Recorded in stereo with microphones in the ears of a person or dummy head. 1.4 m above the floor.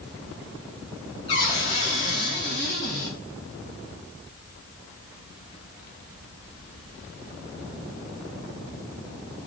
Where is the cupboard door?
35° left (ahead or behind), 4 m.